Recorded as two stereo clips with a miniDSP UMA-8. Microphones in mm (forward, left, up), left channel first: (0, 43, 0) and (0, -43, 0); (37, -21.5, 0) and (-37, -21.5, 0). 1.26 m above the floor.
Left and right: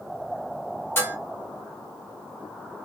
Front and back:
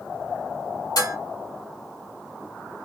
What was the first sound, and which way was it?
Dishes clattering, 30° left.